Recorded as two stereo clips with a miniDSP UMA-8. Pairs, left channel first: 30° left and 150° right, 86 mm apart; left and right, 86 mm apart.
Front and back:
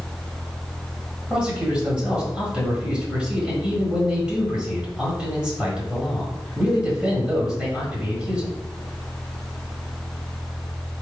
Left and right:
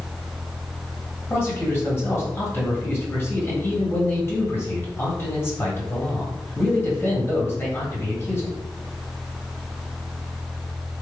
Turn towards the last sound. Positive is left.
turn(degrees=135)